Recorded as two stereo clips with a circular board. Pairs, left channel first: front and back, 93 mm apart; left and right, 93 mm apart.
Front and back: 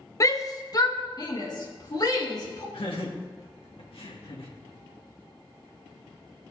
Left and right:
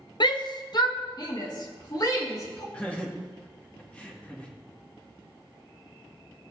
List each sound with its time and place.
0.2 s a shout: 55° left, 0.9 m; by 2.6 s 45° left, 3 m
2.7 s laughter: 15° left, 2 m